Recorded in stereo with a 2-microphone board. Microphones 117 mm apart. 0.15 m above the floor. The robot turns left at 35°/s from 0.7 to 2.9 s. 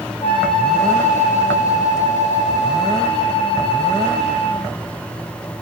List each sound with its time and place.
0.2 s a flute: 135° left, 4 m; by 4.7 s 55° left, 4 m